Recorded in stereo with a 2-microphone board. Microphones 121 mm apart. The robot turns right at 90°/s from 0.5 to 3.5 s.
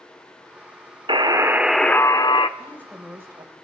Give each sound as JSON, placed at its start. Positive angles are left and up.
{"t": 1.1, "sound": "a buzzer", "azimuth_deg": -60, "distance_m": 0.7}
{"t": 2.6, "sound": "a woman speaking", "azimuth_deg": 145, "distance_m": 2.5}